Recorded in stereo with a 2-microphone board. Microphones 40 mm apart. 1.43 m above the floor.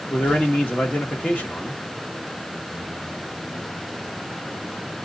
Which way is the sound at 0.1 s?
40° left (ahead or behind).